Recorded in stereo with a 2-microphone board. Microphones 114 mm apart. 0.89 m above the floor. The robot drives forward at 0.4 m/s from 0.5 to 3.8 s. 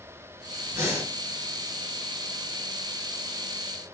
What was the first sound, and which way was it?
Breathing, 30° right (ahead or behind).